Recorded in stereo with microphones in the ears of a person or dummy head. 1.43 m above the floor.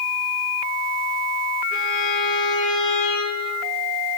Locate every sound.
1.7 s a violin: 60° left (ahead or behind), 5 m